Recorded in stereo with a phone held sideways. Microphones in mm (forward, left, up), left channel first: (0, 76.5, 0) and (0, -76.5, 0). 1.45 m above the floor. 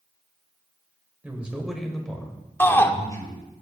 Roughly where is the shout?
Centre.